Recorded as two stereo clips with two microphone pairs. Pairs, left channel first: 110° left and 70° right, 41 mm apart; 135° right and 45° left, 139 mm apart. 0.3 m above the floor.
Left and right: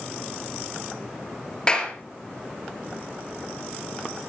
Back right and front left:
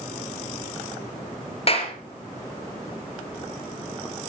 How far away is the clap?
About 4 m.